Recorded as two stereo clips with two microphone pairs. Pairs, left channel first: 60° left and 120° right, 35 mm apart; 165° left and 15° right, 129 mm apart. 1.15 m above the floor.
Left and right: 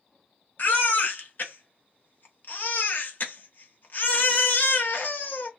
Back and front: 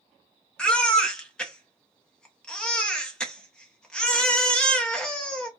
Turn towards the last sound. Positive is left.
turn(degrees=80)